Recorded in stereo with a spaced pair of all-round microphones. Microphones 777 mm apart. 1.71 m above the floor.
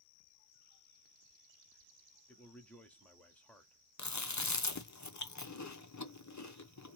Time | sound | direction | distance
2.3 | a man speaking | centre (ahead or behind) | 0.9 m
4.0 | chewing | 25° left (ahead or behind) | 0.6 m